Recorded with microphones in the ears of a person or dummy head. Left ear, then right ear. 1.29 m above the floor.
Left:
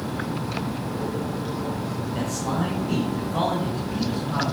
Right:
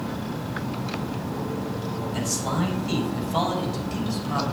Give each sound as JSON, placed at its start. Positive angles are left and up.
{"t": 2.1, "sound": "a man speaking", "side_deg": -80, "distance_m": 7.5}